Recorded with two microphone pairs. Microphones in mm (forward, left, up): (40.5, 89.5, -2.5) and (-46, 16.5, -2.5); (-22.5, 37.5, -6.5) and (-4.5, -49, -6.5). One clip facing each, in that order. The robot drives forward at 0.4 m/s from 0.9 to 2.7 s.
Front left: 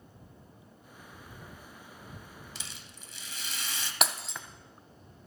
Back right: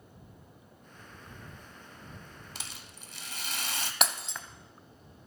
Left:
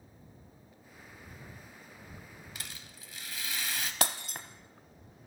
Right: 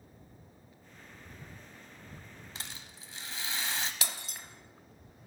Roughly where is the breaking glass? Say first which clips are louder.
Front left 1 dB, left 8 dB; behind left.